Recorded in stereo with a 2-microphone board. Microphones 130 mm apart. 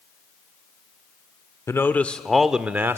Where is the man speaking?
20° left (ahead or behind), 0.8 m; by 3.0 s 20° right (ahead or behind), 0.8 m.